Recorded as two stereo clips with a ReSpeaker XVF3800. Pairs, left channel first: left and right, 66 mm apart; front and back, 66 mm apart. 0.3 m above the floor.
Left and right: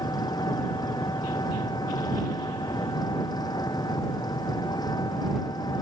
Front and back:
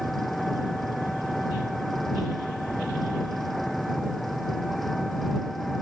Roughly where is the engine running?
Left.